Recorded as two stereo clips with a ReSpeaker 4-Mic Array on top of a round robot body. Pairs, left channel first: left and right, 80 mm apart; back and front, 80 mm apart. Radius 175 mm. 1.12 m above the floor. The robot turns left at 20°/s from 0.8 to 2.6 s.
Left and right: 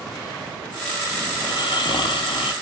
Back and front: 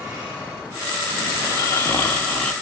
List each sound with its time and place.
1.4 s snoring: 125° left, 0.7 m; by 2.5 s 100° left, 0.7 m